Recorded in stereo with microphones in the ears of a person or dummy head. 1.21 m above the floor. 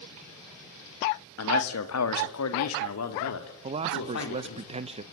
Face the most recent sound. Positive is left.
turn(degrees=-25)  # may be behind; listen again after turning